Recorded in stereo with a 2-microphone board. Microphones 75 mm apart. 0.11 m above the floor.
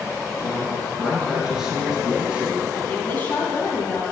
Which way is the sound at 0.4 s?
15° left (ahead or behind).